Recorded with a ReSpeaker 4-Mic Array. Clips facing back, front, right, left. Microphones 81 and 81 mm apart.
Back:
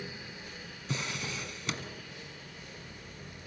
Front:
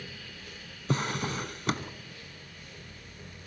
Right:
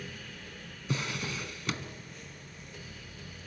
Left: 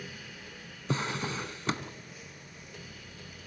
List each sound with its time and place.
0.9 s a drawer: 35° left, 1.0 m